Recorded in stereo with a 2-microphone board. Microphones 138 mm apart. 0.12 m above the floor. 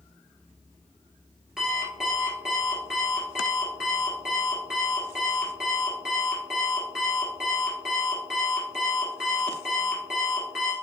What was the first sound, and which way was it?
An alarm clock, 5° right (ahead or behind).